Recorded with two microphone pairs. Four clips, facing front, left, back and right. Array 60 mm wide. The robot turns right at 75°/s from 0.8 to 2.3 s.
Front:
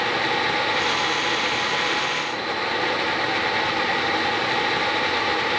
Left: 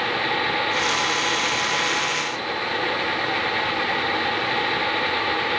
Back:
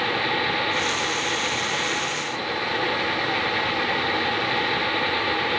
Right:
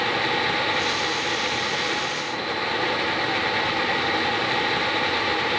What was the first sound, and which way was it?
Only background noise.